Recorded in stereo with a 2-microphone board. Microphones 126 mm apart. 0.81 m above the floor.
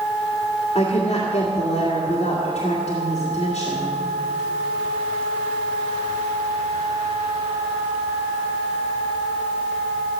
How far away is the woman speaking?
About 2.0 m.